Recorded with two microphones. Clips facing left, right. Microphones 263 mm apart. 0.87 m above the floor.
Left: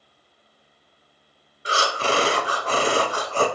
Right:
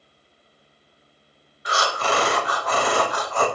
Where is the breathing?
30° left (ahead or behind), 0.6 m.